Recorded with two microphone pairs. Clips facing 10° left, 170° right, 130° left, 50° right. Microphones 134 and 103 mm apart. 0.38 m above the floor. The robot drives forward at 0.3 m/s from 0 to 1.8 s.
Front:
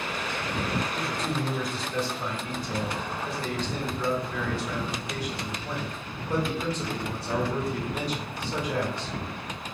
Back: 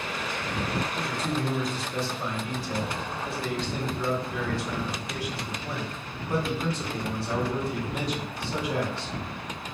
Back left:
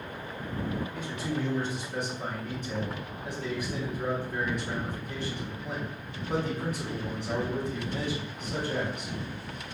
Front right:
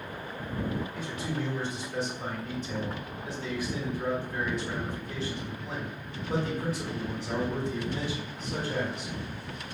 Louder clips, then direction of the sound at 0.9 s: Even, back left 1 dB; 140° left.